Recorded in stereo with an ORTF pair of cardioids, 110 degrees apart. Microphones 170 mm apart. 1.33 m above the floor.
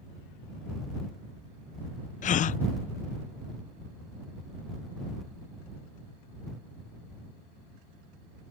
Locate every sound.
2.2 s a gasp: 50° left